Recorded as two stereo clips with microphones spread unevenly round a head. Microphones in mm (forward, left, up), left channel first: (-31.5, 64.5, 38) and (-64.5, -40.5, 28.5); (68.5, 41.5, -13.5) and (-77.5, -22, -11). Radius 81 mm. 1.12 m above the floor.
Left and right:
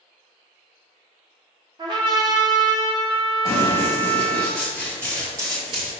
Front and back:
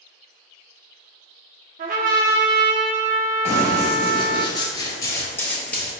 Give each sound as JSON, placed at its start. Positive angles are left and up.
{"t": 1.8, "sound": "a trumpet", "azimuth_deg": -155, "distance_m": 0.8}
{"t": 3.5, "sound": "running footsteps", "azimuth_deg": 30, "distance_m": 1.3}